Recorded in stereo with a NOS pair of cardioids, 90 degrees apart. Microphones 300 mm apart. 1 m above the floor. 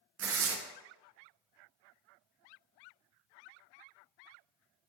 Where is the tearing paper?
50° right, 0.5 m.